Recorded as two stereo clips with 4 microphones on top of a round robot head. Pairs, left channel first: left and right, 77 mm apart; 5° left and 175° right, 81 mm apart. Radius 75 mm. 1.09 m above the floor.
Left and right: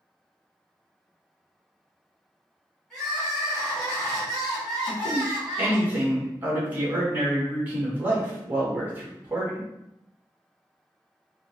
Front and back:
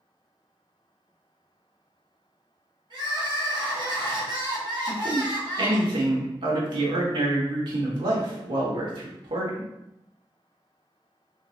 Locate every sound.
2.9 s crying: 175° left, 1.8 m
4.9 s a man speaking: 160° right, 1.4 m